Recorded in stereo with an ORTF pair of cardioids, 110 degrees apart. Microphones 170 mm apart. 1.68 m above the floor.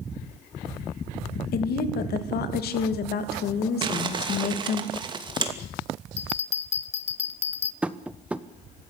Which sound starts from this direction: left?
A woman speaking, at 1.5 s.